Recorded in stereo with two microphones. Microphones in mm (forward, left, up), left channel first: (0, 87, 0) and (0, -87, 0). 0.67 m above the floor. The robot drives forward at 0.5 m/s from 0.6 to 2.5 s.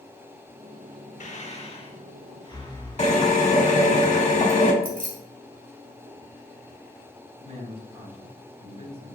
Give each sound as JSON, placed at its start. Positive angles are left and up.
{"t": 1.2, "sound": "breathing", "side_deg": 45, "distance_m": 0.6}
{"t": 3.0, "sound": "a drill", "side_deg": 40, "distance_m": 1.1}
{"t": 4.8, "sound": "keys jangling", "side_deg": -55, "distance_m": 1.4}
{"t": 7.4, "sound": "a man speaking", "side_deg": -35, "distance_m": 2.0}